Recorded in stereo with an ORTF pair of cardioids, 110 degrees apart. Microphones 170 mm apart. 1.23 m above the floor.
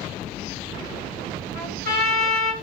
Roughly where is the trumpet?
Left.